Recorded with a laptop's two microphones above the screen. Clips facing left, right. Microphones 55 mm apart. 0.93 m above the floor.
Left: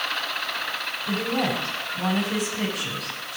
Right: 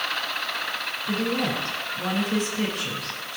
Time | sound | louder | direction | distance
1.1 | a woman speaking | left 1 dB | 85° left | 7 m